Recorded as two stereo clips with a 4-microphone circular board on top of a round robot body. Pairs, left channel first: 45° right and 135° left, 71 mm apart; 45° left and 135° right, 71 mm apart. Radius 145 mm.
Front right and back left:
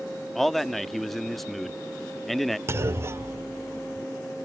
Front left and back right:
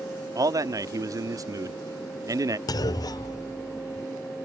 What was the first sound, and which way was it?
A man speaking, 130° right.